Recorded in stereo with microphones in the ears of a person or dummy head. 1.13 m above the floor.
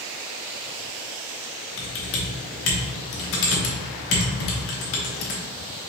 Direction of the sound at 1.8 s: 65° left (ahead or behind).